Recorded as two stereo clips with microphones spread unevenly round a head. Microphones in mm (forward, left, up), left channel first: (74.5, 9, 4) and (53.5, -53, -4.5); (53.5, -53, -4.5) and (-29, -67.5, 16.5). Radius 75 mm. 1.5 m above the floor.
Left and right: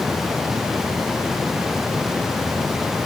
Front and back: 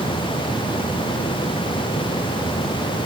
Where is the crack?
I don't hear a crack.